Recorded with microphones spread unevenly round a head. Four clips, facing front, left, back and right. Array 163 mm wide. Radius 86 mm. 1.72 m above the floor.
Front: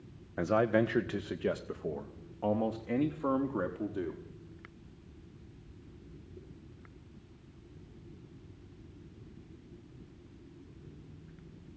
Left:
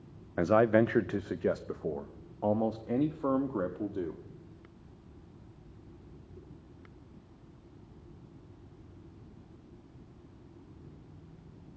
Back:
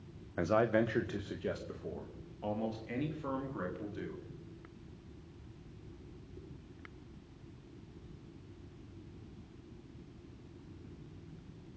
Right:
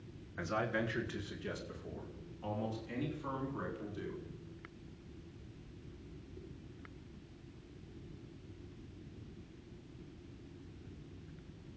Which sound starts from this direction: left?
A man speaking, at 0.4 s.